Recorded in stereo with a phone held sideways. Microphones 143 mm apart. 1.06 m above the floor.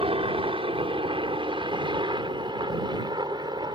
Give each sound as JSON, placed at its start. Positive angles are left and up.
{"t": 0.0, "sound": "a helicopter", "side_deg": -40}